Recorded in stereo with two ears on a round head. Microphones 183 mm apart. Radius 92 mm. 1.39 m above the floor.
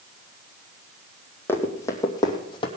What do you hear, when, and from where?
1.5 s running footsteps: 10° left (ahead or behind), 2.5 m; by 2.7 s 25° left (ahead or behind), 2.5 m